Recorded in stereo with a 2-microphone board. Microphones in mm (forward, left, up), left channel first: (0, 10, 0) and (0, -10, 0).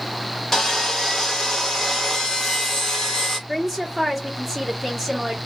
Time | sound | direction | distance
0.5 | sawing | 5° left (ahead or behind) | 1.1 m
3.5 | a woman speaking | 10° right (ahead or behind) | 1.4 m